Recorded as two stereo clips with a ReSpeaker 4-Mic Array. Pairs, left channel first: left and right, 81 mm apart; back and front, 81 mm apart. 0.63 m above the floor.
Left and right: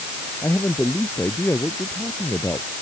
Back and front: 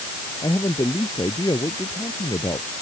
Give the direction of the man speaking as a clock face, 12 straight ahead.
7 o'clock.